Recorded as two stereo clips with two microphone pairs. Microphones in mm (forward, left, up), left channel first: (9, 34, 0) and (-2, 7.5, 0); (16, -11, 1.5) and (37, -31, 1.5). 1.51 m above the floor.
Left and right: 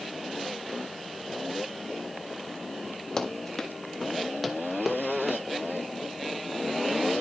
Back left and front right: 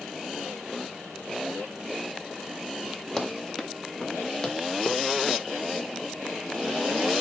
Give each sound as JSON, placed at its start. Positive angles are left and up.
{"t": 3.2, "sound": "running footsteps", "azimuth_deg": 70, "distance_m": 1.7}